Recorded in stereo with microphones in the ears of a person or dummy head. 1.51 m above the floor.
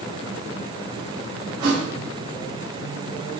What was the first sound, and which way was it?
A thud, 60° right (ahead or behind).